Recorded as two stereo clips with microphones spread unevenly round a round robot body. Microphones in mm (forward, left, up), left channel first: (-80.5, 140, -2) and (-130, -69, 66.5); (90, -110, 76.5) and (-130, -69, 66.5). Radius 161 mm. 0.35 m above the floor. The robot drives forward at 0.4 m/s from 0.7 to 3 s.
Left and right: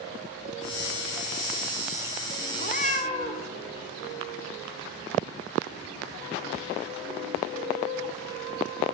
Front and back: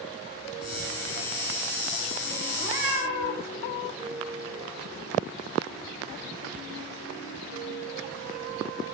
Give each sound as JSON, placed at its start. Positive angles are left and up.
{"t": 2.6, "sound": "a cat meowing", "azimuth_deg": 130, "distance_m": 1.4}